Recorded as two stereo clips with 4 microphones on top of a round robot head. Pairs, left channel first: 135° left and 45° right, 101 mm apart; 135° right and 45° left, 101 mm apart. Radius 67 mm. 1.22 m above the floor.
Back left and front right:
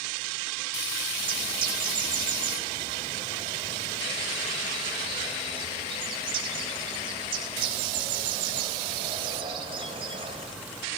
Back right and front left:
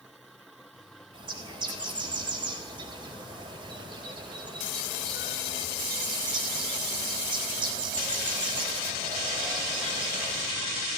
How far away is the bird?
About 3.5 m.